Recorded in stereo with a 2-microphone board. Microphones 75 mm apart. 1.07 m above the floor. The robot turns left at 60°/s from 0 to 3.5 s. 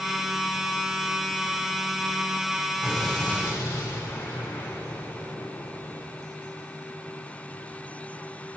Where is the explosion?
170° right, 3 m; by 6.2 s 150° left, 3 m.